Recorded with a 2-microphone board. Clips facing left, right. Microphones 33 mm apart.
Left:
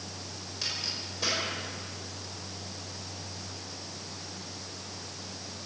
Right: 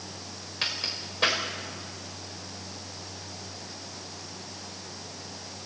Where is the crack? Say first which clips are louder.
Right 4 dB; 45° right (ahead or behind), 5.5 m.